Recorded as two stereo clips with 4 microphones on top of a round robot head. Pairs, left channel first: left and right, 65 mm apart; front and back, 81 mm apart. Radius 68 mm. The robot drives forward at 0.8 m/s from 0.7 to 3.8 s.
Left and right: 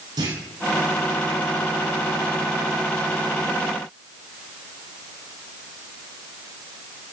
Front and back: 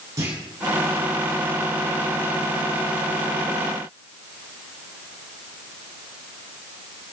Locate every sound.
0.2 s a clunk: 120° right, 5.5 m